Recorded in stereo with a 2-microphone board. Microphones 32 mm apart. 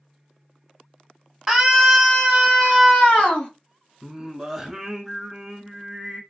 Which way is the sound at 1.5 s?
Centre (ahead or behind).